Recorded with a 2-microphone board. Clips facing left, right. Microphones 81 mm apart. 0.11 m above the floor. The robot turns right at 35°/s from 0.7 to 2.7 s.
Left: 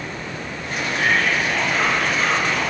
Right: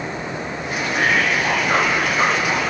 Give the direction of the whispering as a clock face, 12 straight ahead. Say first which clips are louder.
Right 1 dB; 3 o'clock.